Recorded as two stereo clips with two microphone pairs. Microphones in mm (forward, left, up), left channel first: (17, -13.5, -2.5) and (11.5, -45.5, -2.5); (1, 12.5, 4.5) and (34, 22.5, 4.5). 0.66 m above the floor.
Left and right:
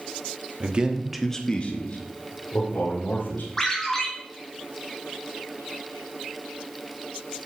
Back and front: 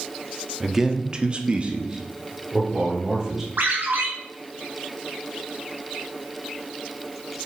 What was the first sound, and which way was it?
A man speaking, 60° right.